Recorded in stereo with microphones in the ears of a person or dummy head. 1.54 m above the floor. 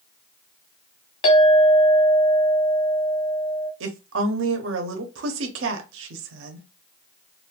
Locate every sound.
1.2 s a clink: 40° left (ahead or behind), 0.8 m
3.8 s a woman speaking: 85° right, 0.8 m